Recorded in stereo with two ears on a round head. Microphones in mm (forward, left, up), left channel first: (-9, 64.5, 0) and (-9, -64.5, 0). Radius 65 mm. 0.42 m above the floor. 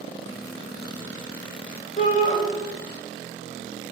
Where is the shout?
50° left (ahead or behind), 1.8 m.